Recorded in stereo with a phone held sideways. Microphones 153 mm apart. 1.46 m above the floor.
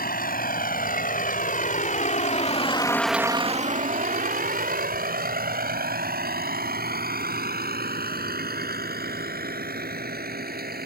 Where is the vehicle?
75° left (ahead or behind); by 10.9 s 85° right.